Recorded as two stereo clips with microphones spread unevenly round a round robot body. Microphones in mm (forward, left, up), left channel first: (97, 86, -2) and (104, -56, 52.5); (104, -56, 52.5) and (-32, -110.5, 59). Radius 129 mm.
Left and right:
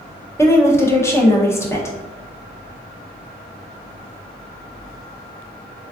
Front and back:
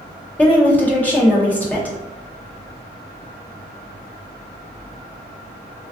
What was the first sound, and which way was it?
A woman speaking, 90° left.